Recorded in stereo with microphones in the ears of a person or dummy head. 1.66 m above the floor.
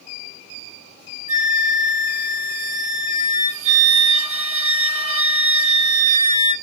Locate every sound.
1.3 s a flute: 40° right (ahead or behind), 1.6 m